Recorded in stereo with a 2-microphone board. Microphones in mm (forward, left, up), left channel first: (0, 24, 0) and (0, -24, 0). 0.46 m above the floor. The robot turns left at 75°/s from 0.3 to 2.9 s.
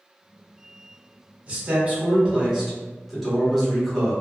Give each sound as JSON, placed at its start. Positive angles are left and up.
{"t": 1.5, "sound": "a man speaking", "azimuth_deg": -75, "distance_m": 1.2}